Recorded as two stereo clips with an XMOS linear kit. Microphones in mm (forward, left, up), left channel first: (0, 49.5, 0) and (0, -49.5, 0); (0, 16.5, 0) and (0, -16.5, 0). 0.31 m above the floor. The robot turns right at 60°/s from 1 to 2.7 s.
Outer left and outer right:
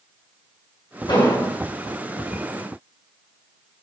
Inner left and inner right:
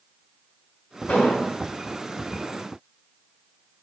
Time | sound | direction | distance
1.1 | an explosion | 55° left (ahead or behind) | 3.5 m